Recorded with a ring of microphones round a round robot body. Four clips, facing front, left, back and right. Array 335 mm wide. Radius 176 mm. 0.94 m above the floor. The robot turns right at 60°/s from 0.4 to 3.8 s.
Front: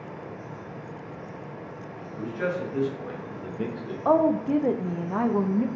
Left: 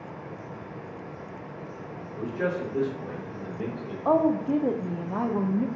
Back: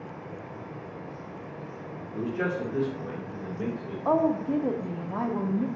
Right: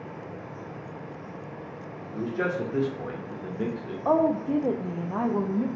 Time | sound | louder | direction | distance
2.1 | a man speaking | right 1 dB, even | 135° right | 1.3 m
4.0 | a woman speaking | left 1 dB, front 3 dB | straight ahead | 0.5 m